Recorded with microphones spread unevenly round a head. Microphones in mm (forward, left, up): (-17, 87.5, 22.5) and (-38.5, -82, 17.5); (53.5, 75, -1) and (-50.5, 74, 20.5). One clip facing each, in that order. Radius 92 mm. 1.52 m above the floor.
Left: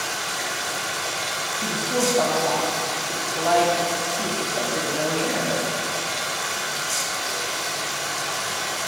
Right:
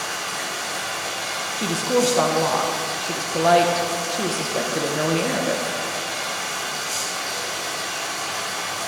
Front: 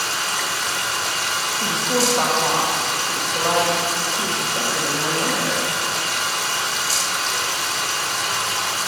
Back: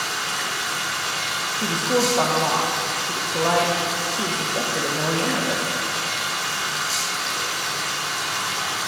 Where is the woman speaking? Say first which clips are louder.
Right 5 dB, back 1 dB; 110° right, 0.9 m.